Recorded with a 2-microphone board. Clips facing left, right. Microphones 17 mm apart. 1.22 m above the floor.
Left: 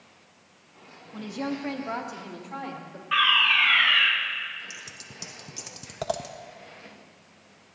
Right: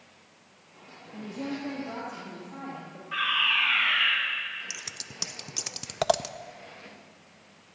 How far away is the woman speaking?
About 1.7 m.